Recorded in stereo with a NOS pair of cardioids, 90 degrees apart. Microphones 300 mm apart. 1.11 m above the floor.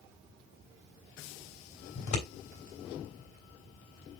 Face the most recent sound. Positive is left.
turn(degrees=65)